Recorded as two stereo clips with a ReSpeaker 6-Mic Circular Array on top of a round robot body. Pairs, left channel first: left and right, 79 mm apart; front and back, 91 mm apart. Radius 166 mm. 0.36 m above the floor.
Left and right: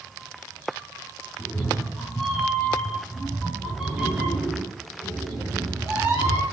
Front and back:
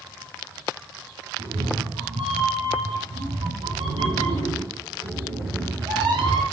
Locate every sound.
1.4 s a cat meowing: 165° left, 2.5 m; by 6.4 s 155° right, 4.5 m